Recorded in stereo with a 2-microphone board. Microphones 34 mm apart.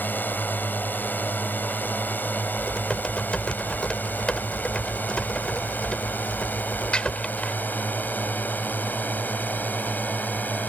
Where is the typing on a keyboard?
35° left (ahead or behind).